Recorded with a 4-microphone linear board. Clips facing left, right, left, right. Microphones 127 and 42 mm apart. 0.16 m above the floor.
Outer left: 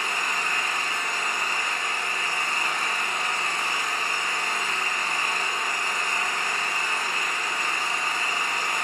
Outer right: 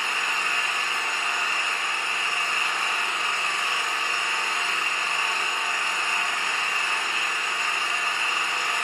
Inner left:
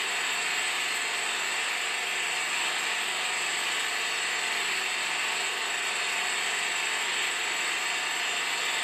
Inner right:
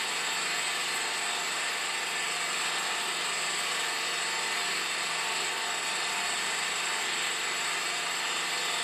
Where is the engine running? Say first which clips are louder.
Even, inner left 2 dB; 45° left (ahead or behind), 1.1 m.